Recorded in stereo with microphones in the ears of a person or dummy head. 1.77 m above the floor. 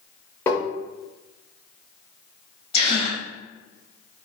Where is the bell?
I don't hear a bell.